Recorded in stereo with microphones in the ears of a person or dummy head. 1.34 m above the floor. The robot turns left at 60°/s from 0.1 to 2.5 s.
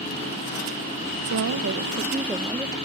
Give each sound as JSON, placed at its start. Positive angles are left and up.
{"t": 1.3, "sound": "a woman speaking", "azimuth_deg": -100}